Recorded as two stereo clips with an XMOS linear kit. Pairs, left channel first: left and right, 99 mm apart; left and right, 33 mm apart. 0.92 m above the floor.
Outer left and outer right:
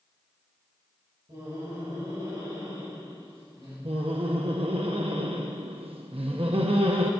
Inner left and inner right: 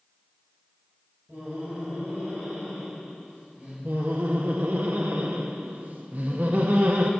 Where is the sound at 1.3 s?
50° right (ahead or behind), 4.5 m.